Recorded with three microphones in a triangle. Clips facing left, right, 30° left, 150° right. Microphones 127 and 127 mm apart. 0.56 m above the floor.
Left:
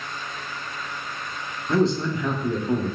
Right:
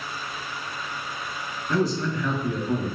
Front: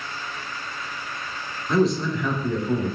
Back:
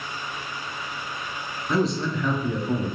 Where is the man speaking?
120° left, 0.7 m.